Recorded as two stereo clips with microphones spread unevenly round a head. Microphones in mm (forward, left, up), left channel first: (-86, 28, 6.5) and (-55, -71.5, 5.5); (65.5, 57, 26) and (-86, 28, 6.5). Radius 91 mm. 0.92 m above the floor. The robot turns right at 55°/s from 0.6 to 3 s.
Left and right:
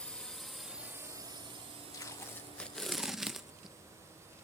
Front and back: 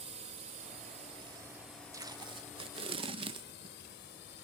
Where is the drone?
Straight behind; by 4.5 s straight ahead.